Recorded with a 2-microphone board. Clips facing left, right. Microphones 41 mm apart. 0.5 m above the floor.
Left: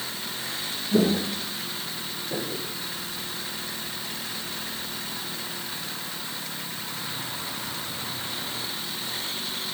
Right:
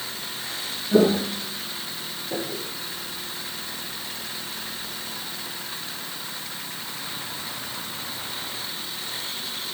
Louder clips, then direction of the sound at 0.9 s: Right 4 dB; 40° right (ahead or behind).